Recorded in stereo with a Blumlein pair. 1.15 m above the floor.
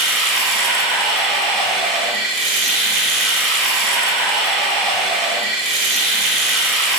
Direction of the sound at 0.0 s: 25° right.